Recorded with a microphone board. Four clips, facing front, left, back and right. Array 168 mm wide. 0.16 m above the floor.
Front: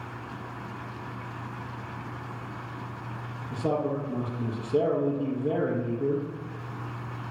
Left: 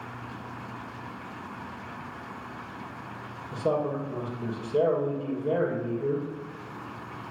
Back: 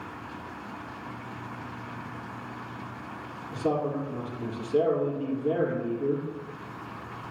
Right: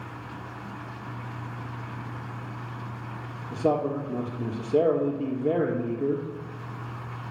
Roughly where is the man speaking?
Right.